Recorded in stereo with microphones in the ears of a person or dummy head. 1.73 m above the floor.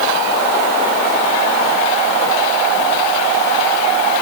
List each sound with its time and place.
Only background noise.